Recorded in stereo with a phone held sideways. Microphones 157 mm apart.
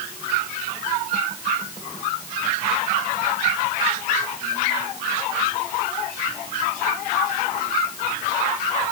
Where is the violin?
I don't hear a violin.